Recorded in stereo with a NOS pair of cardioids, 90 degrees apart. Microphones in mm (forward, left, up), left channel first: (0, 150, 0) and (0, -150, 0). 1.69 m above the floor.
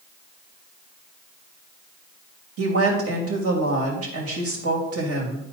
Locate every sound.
2.6 s a woman speaking: 50° right, 3 m